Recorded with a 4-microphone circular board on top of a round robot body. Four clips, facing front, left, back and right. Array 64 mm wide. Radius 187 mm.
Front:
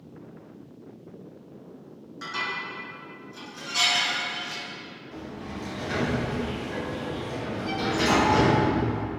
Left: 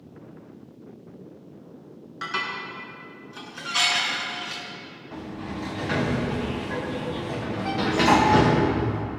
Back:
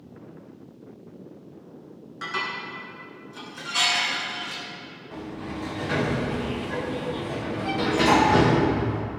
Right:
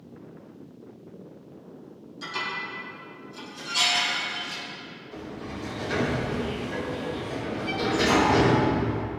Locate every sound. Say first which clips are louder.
2.2 s dishes clattering: left 2 dB, back 1 dB; 105° left, 4.5 m
5.1 s a sliding door: left 3 dB, back 4 dB; 110° left, 3.5 m